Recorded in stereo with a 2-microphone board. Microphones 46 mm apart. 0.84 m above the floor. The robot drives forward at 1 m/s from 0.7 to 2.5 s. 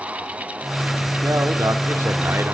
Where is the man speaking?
70° right (ahead or behind), 2 m; by 2.5 s 65° right (ahead or behind), 2.5 m.